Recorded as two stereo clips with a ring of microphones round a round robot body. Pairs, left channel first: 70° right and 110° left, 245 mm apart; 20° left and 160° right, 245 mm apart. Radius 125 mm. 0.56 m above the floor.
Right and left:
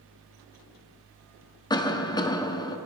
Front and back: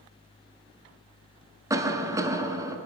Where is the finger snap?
No finger snap in this recording.